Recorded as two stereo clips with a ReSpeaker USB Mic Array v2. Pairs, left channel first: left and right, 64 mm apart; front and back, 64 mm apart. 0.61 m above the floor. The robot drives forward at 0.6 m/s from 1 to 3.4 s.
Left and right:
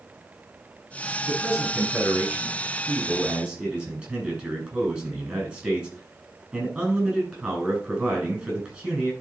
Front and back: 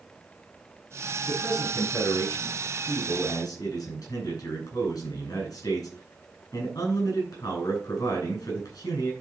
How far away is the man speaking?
About 7 m.